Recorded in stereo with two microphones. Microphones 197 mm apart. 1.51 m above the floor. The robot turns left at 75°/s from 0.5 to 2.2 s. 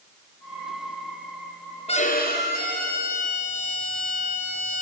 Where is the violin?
35° left (ahead or behind), 5.5 m; by 4.8 s 55° left (ahead or behind), 5.5 m.